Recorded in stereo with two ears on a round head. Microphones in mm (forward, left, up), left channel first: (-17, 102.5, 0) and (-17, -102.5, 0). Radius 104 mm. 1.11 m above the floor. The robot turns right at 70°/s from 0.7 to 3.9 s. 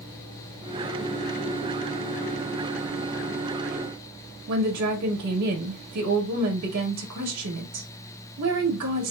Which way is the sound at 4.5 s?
85° right.